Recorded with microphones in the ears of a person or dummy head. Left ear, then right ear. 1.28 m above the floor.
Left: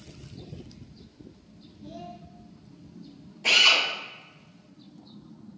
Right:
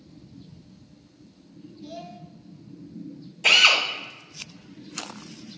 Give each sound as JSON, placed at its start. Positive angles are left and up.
{"t": 1.8, "sound": "a child speaking", "side_deg": -40, "distance_m": 1.2}
{"t": 3.4, "sound": "a drill", "side_deg": -60, "distance_m": 2.0}